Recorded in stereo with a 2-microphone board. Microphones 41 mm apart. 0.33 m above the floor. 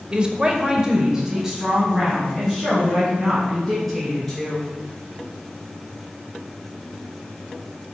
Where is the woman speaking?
25° right (ahead or behind), 0.9 m; by 4.7 s 5° right (ahead or behind), 4.5 m.